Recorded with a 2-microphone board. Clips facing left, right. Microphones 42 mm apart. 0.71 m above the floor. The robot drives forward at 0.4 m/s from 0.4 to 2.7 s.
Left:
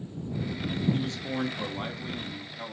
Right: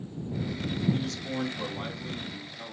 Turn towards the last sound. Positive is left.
turn(degrees=15)  # may be behind; listen again after turning